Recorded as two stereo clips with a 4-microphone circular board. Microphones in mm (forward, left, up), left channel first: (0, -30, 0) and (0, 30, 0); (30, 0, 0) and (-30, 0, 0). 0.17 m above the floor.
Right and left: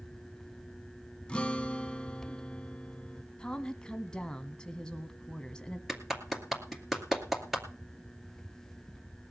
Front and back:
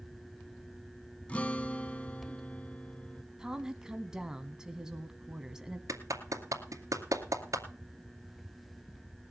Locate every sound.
1.3 s a guitar: 40° right, 0.7 m
3.4 s a woman speaking: 125° right, 1.0 m
5.9 s a clap: 175° left, 2 m